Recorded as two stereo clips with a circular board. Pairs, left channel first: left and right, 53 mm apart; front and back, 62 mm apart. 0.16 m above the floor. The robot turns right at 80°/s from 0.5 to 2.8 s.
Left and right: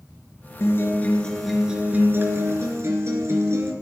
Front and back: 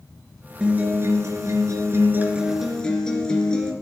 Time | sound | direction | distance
0.6 | a guitar | 110° left | 2.5 m